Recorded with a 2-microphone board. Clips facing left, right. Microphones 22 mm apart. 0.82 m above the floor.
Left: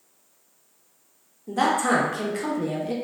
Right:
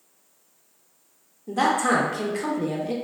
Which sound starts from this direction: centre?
A man speaking, at 1.5 s.